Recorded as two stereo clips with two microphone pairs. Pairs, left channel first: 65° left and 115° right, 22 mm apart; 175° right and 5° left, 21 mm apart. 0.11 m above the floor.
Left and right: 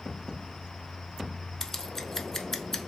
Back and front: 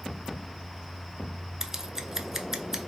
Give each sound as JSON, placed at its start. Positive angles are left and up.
{"t": 1.6, "sound": "scissors", "azimuth_deg": 40, "distance_m": 0.5}